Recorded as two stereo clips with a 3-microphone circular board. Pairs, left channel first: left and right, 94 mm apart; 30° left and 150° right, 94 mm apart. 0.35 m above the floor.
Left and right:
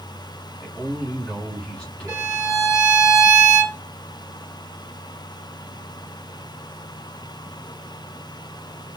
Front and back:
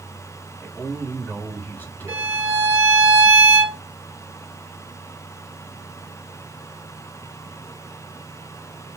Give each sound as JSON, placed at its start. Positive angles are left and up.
{"t": 0.6, "sound": "a man speaking", "azimuth_deg": 40, "distance_m": 1.2}
{"t": 2.1, "sound": "a violin", "azimuth_deg": -110, "distance_m": 1.8}